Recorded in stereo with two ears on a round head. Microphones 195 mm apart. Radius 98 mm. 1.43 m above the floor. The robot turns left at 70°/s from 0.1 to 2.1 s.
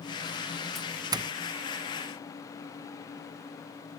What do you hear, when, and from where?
0.8 s a doorbell: centre (ahead or behind), 0.6 m; by 1.3 s 25° right (ahead or behind), 0.6 m